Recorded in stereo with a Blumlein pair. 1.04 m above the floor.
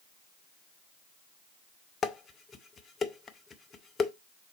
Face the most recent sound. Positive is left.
turn(degrees=20)